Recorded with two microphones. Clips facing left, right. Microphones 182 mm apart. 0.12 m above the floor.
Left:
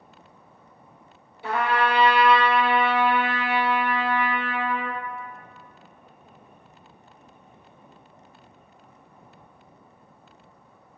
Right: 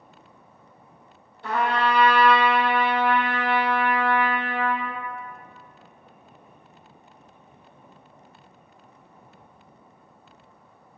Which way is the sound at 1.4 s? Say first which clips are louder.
Even; 10° left (ahead or behind).